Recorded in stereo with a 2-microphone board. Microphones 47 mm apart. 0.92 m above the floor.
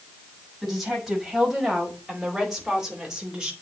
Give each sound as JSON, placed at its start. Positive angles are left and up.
{"t": 0.6, "sound": "a woman speaking", "side_deg": 0, "distance_m": 4.5}